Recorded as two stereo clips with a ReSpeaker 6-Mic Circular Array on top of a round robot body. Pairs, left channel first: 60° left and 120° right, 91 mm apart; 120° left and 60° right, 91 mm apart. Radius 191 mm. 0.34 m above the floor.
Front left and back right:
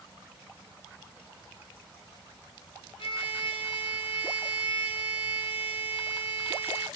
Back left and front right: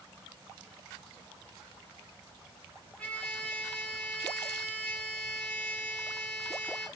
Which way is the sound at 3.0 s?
45° left.